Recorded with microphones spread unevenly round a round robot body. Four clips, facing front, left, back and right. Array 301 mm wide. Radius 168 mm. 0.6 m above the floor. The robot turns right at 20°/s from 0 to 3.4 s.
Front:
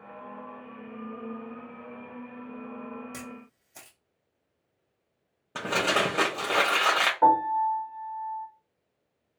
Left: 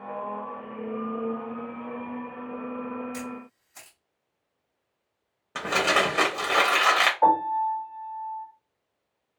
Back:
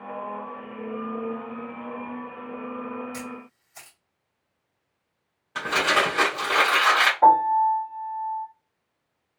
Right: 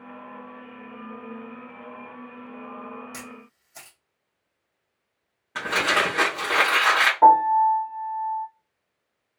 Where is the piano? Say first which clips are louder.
Right 8 dB, back 5 dB; 50° right, 1.5 m.